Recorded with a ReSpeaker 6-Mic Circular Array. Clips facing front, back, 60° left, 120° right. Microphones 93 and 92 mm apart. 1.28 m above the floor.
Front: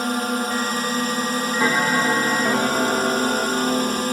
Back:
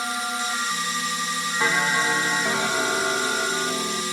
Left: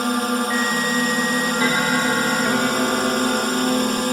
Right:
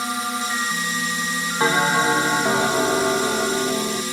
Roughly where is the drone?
Ahead left.